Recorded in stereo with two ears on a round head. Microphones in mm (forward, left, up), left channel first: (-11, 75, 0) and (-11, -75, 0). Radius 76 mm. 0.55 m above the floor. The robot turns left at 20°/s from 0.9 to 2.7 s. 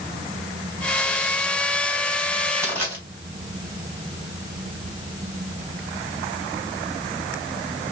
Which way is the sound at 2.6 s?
10° left (ahead or behind).